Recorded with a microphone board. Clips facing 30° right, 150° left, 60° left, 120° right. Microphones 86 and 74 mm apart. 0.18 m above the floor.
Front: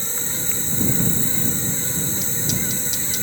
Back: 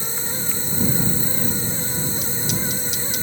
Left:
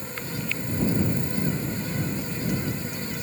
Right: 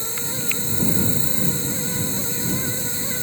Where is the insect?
125° right.